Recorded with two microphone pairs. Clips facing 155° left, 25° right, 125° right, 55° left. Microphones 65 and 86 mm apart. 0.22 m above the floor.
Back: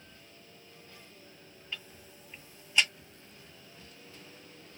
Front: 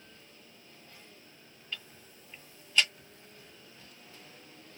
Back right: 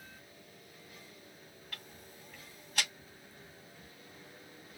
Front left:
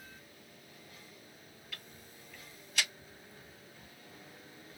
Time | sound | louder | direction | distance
1.7 | ticking | even, back right 1 dB | 130° right | 1.8 m